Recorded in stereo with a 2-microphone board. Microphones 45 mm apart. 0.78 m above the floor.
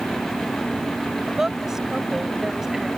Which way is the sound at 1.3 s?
10° right (ahead or behind).